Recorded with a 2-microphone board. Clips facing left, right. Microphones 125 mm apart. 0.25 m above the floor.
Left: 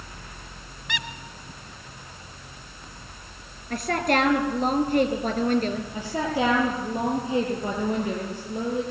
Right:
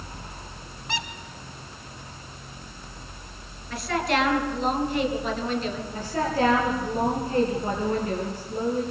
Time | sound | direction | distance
0.9 | a squeak | 35° right (ahead or behind) | 1.6 m
3.7 | a woman speaking | 50° left (ahead or behind) | 4.5 m
5.9 | a woman speaking | 15° left (ahead or behind) | 5.5 m